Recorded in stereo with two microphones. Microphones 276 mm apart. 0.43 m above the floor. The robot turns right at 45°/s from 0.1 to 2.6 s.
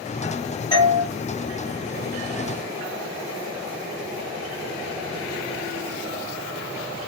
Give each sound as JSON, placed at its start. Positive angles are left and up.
{"t": 0.7, "sound": "a doorbell", "side_deg": 15, "distance_m": 1.3}